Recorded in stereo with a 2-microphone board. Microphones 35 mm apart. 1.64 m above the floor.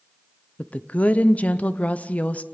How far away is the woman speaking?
About 0.8 m.